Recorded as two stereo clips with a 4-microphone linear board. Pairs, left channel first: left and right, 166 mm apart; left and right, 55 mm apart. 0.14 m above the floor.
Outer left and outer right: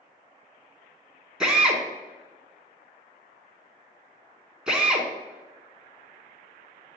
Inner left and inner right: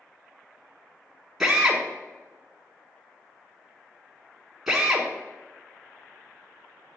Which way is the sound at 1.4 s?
5° right (ahead or behind).